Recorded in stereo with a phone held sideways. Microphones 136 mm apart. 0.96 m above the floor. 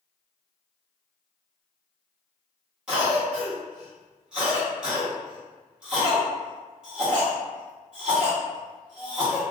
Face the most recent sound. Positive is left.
turn(degrees=-5)  # may be behind; listen again after turning